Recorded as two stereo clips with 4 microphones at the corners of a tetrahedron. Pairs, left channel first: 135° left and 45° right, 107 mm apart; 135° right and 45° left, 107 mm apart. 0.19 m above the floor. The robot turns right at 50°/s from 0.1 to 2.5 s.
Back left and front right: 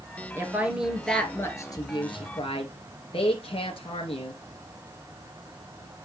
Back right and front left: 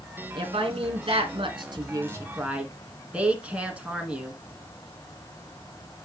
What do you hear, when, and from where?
0.3 s a woman speaking: 15° left, 2 m; by 4.4 s 120° left, 2 m